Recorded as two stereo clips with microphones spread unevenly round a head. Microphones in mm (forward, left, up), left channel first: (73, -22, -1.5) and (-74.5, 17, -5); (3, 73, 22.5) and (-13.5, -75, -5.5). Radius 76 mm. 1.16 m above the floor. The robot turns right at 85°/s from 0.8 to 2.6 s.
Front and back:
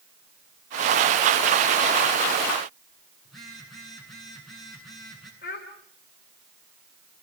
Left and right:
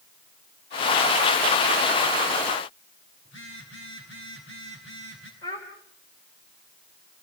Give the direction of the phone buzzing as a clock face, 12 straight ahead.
10 o'clock.